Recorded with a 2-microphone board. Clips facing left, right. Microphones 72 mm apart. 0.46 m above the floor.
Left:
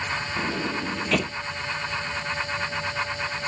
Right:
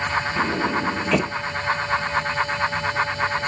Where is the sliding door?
15° right (ahead or behind).